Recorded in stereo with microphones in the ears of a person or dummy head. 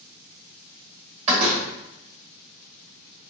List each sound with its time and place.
1.3 s a door slam: 35° right (ahead or behind), 1.3 m